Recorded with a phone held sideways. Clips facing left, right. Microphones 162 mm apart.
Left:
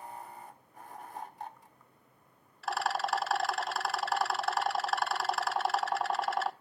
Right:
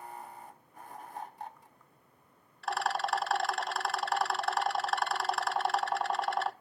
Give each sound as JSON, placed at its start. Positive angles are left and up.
{"t": 2.6, "sound": "a rattle", "side_deg": 0, "distance_m": 0.6}